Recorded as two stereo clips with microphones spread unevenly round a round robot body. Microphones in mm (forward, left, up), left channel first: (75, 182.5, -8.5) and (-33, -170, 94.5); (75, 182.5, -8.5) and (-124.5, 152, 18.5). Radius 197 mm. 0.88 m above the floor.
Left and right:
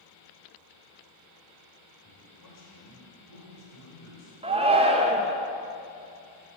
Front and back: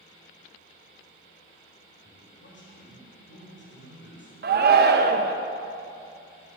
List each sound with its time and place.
2.0 s a man speaking: 30° left, 4 m
4.4 s a shout: 165° left, 0.6 m